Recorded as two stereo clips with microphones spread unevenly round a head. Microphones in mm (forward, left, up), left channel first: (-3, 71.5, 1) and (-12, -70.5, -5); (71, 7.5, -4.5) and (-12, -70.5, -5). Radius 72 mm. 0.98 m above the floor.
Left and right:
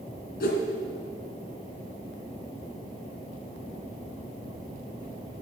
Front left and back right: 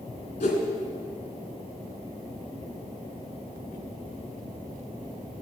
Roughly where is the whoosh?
Left.